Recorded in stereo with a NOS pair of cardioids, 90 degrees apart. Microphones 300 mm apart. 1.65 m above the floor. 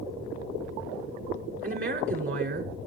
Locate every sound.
1.6 s a woman speaking: 45° right, 6 m